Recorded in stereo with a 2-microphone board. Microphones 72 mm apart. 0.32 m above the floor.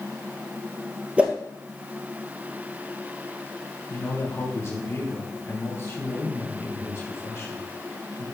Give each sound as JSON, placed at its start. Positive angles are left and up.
{"t": 1.2, "sound": "a whoosh", "side_deg": -15, "distance_m": 1.7}
{"t": 3.9, "sound": "a man speaking", "side_deg": 40, "distance_m": 3.0}